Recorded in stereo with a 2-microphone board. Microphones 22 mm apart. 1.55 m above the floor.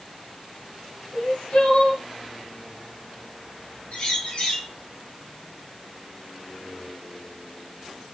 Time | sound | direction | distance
1.1 | crying | 80° left | 1.3 m
3.9 | a bird | 80° left | 2.0 m